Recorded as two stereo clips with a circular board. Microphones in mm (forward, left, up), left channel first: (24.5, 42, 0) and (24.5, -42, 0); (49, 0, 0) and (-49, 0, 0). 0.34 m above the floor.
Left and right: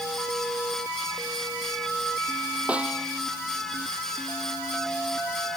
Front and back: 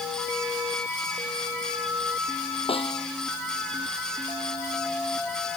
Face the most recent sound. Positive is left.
turn(degrees=-15)